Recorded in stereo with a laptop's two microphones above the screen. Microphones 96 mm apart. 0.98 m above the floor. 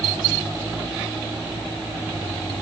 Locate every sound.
Only background noise.